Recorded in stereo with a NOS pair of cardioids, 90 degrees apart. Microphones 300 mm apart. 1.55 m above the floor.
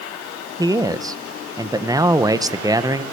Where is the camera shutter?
I don't hear a camera shutter.